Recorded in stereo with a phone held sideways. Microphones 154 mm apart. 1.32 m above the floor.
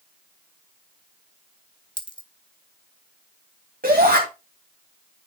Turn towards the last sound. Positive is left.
turn(degrees=-75)  # may be behind; listen again after turning